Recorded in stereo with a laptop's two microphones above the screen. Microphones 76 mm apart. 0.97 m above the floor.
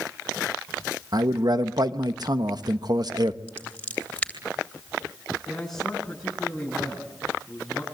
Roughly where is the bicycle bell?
No bicycle bell in this recording.